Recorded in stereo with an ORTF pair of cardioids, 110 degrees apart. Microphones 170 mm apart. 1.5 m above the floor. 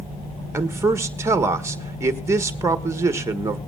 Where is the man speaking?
15° right, 1.2 m.